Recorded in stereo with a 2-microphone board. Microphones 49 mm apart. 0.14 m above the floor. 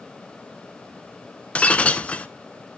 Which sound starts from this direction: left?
Breaking glass, at 1.6 s.